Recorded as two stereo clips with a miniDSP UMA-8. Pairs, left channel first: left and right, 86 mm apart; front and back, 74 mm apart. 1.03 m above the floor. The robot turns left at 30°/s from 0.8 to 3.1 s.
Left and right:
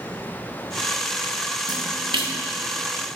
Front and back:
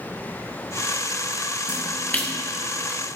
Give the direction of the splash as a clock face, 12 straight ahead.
2 o'clock.